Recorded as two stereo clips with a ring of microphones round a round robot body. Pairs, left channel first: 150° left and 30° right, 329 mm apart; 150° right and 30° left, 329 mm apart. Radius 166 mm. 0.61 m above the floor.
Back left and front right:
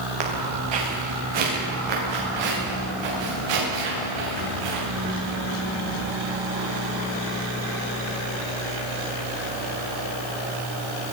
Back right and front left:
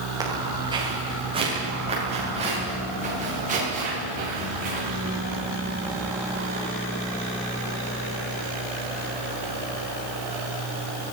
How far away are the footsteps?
About 9 m.